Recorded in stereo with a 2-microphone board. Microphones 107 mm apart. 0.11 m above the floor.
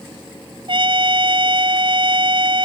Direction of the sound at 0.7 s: 55° right (ahead or behind).